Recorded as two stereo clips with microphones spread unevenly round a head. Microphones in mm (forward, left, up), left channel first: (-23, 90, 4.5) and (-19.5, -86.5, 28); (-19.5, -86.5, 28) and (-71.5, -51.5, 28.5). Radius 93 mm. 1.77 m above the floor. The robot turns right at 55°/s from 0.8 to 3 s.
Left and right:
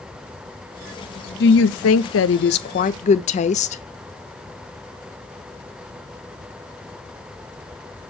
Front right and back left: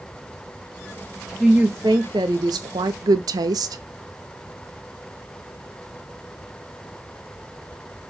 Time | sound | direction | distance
1.4 | a woman speaking | 55° left | 0.7 m